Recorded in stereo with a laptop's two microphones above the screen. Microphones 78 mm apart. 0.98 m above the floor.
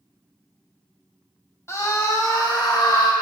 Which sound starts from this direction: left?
A scream, at 1.7 s.